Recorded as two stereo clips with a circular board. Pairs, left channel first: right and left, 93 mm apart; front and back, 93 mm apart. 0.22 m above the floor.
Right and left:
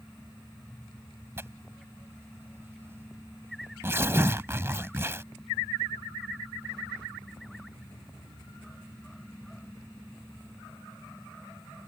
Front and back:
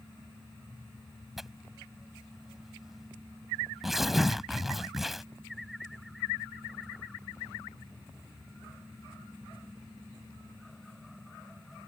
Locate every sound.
1.4 s tearing paper: 95° left